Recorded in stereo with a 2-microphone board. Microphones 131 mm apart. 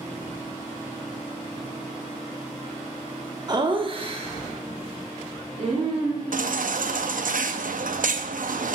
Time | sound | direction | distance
3.5 | laughter | 30° right (ahead or behind) | 0.7 m
6.3 | a baby crying | 75° right (ahead or behind) | 0.6 m